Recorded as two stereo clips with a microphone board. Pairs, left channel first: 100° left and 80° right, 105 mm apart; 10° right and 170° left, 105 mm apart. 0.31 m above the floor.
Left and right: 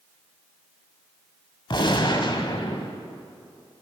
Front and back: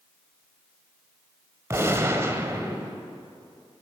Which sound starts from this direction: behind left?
A gunshot, at 1.7 s.